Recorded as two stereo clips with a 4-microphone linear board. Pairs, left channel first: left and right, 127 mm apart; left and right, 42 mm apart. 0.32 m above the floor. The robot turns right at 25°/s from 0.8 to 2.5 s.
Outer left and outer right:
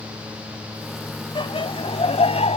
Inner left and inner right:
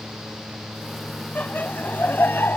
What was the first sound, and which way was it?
Laughter, 40° left (ahead or behind).